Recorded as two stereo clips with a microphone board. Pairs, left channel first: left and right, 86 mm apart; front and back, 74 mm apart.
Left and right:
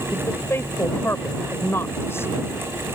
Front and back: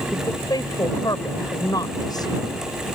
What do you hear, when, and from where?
0.1 s a woman speaking: 30° left